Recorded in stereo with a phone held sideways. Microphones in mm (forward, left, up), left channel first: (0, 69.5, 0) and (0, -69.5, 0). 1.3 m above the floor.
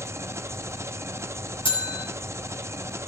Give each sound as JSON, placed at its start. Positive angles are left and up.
{"t": 0.0, "sound": "an engine running", "side_deg": -20, "distance_m": 0.8}
{"t": 1.6, "sound": "a bell", "side_deg": 35, "distance_m": 6.0}